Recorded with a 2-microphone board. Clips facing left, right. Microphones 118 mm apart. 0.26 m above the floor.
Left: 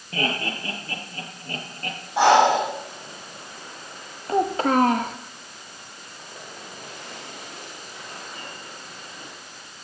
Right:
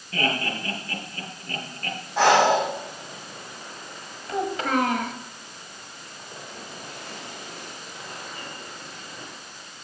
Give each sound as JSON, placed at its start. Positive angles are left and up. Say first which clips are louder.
{"t": 0.1, "sound": "laughter", "louder": "even", "side_deg": 30, "distance_m": 5.5}
{"t": 2.2, "sound": "breathing", "louder": "left 2 dB", "side_deg": 15, "distance_m": 6.0}
{"t": 4.3, "sound": "a child speaking", "louder": "left 5 dB", "side_deg": 35, "distance_m": 0.6}